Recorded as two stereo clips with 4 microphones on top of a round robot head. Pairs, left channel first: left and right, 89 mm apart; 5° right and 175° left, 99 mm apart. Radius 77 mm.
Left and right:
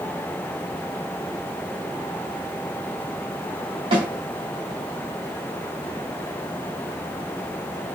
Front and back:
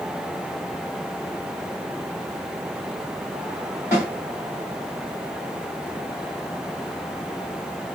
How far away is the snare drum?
About 2 m.